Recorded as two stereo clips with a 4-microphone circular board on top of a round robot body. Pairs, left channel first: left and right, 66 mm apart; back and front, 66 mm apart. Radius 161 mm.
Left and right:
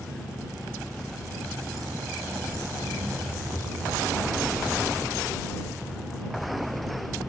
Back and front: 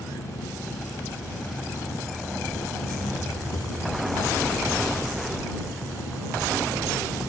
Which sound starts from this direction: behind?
An engine running, at 0.0 s.